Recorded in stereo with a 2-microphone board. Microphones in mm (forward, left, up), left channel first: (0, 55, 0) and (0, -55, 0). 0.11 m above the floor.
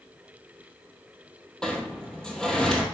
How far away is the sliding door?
About 1.5 m.